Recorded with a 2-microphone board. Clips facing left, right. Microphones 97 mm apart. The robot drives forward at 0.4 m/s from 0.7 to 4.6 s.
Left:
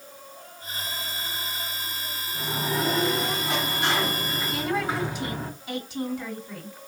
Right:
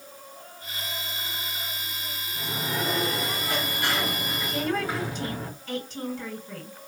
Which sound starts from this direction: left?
A sliding door, at 2.3 s.